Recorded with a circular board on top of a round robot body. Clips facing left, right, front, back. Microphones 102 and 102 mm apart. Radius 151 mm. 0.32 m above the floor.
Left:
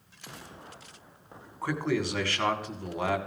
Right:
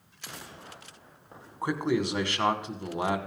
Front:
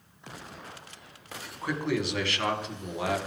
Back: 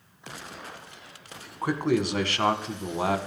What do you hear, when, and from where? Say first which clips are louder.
1.6 s a man speaking: right 2 dB, back 5 dB; 150° right, 2 m